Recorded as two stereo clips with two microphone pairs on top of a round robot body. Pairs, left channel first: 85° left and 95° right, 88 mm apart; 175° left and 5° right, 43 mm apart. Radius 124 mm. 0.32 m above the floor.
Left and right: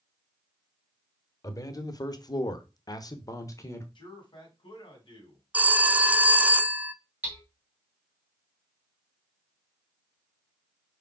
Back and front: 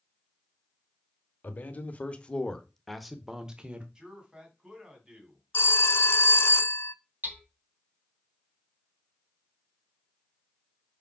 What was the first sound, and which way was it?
A man speaking, 130° left.